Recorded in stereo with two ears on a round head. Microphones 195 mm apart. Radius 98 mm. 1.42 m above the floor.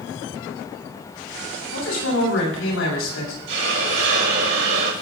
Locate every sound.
1.7 s a man speaking: 70° left (ahead or behind), 8 m
3.5 s a hiss: 60° right (ahead or behind), 3.5 m